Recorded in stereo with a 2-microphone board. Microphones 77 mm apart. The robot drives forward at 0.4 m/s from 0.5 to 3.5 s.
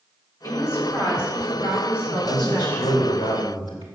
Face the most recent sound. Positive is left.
turn(degrees=85)